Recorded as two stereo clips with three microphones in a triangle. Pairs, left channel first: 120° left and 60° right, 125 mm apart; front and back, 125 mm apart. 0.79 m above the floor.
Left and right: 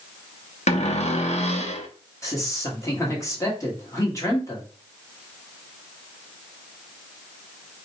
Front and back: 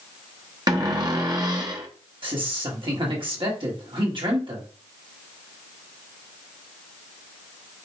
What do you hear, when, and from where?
0.7 s a cupboard door: 130° left, 0.7 m
2.2 s a man speaking: 170° left, 1.4 m